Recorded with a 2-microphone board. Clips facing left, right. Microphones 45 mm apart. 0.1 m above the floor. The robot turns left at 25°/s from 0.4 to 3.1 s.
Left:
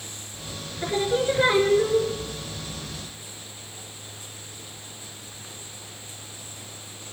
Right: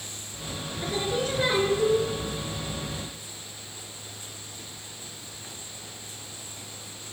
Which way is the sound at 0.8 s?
135° left.